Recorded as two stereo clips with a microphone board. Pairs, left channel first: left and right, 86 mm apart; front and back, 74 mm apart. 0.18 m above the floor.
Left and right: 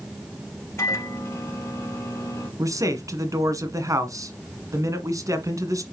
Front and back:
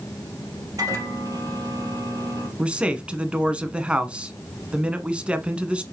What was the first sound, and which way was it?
A microwave, 145° left.